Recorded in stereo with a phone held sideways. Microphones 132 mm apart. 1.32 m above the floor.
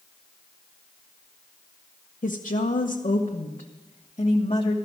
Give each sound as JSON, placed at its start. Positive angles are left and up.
{"t": 2.2, "sound": "a woman speaking", "side_deg": 75, "distance_m": 0.9}